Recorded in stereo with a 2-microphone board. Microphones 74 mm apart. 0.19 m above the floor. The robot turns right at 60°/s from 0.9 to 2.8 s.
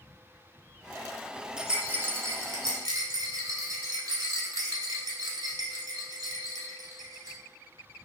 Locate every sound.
1.6 s a rattle: 5° right (ahead or behind), 0.7 m; by 7.4 s 60° right (ahead or behind), 0.7 m